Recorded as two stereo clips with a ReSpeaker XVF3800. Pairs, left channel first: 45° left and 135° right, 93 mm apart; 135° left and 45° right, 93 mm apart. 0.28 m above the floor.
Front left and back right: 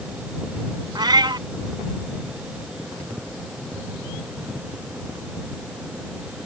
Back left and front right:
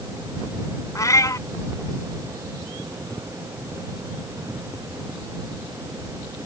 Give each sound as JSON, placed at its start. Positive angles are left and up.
{"t": 0.9, "sound": "a cat meowing", "azimuth_deg": -175}